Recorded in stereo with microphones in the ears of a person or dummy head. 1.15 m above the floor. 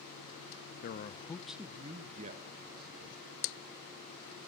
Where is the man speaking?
50° left (ahead or behind), 0.6 m; by 3.2 s 55° right (ahead or behind), 1.5 m.